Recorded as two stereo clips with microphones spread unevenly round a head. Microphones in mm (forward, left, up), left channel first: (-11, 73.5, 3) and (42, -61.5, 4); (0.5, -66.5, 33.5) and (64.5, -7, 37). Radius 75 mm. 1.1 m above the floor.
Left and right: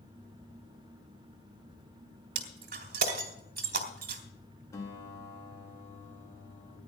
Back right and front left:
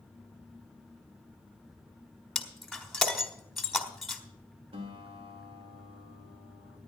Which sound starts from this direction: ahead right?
Breaking glass, at 2.4 s.